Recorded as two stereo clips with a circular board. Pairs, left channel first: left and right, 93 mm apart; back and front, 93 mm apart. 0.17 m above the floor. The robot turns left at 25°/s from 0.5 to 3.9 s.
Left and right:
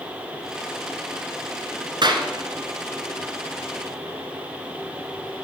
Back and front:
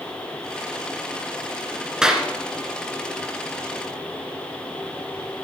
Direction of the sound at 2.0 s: 80° right.